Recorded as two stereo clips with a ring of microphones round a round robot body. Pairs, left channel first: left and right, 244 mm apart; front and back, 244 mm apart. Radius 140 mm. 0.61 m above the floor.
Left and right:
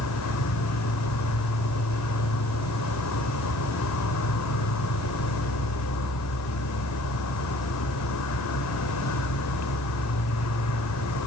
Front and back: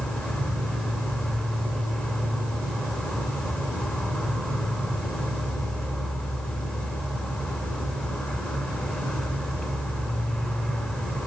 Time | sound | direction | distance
0.0 | an insect | 85° left | 1.2 m